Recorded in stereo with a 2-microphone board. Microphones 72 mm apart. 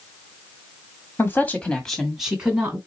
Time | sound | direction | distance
1.2 | a woman speaking | 35° left (ahead or behind) | 1.5 m